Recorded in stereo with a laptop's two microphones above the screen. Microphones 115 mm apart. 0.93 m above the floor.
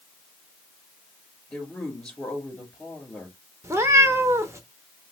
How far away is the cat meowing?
About 0.7 m.